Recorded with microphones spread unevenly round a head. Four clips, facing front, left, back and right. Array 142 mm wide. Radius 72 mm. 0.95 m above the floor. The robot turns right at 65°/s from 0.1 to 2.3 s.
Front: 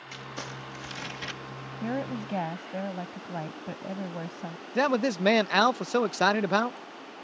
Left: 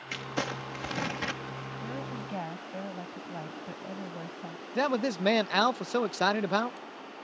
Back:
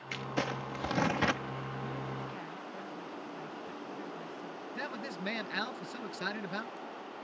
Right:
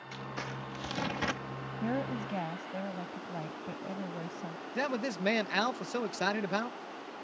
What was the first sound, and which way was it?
Crumpling, 110° left.